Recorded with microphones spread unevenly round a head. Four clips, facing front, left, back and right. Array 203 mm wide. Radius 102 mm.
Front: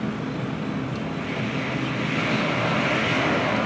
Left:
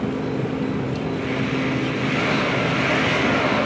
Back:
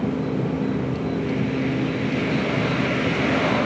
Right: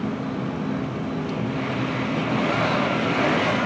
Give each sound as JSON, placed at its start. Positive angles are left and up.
{"t": 0.0, "sound": "an insect", "azimuth_deg": 135, "distance_m": 2.0}